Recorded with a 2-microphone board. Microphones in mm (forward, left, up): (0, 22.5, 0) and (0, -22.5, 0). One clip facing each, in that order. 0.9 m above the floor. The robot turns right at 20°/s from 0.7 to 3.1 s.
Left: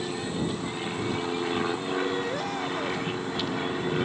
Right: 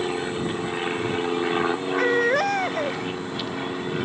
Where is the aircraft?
50° right; by 4.0 s straight ahead.